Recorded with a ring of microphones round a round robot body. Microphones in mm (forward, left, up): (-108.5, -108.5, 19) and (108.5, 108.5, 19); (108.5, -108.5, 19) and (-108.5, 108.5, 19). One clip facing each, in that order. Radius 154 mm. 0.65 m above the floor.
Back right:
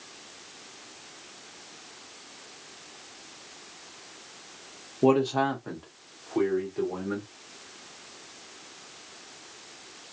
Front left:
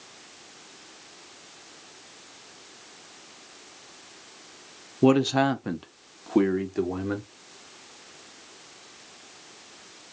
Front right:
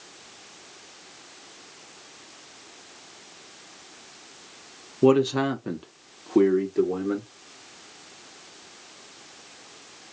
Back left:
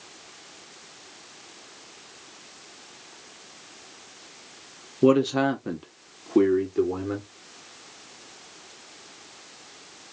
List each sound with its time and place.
5.0 s a man speaking: 40° left, 0.6 m; by 7.3 s 45° left, 1.6 m